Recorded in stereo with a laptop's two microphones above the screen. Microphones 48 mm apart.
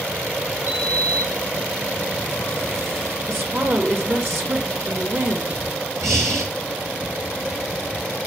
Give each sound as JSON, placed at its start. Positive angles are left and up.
{"t": 0.7, "sound": "a sliding door", "side_deg": -60, "distance_m": 3.0}
{"t": 3.3, "sound": "a woman speaking", "side_deg": -55, "distance_m": 1.6}
{"t": 6.0, "sound": "breathing", "side_deg": -75, "distance_m": 3.5}